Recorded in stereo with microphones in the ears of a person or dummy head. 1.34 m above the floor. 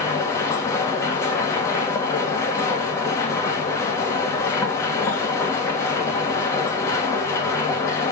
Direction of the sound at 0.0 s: 15° left (ahead or behind).